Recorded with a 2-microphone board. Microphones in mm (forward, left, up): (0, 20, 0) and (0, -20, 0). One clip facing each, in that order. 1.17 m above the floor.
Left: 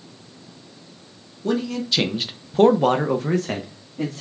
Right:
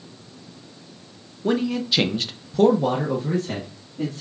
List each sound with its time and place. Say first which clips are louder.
1.4 s a man speaking: right 1 dB; 25° right (ahead or behind), 0.9 m; by 4.2 s 75° left (ahead or behind), 1.3 m